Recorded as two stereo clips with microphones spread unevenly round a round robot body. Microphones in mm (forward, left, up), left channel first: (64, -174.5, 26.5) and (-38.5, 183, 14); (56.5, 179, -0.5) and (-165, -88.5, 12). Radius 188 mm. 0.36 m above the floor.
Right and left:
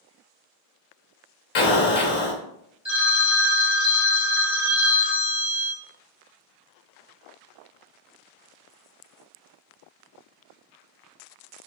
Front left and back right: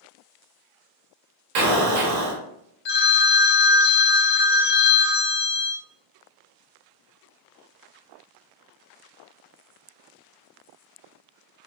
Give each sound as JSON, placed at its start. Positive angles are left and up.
{"t": 1.6, "sound": "an explosion", "azimuth_deg": -125, "distance_m": 0.9}
{"t": 2.9, "sound": "a phone ringing", "azimuth_deg": 25, "distance_m": 0.6}